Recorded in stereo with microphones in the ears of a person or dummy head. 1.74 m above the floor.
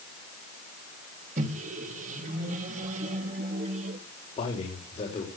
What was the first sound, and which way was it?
A microwave, 45° right (ahead or behind).